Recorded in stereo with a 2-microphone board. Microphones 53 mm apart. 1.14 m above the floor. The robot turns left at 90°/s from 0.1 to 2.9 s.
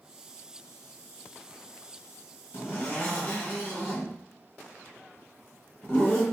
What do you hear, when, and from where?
2.5 s a zipper: 55° left (ahead or behind), 1.6 m; by 6.2 s 40° left (ahead or behind), 1.6 m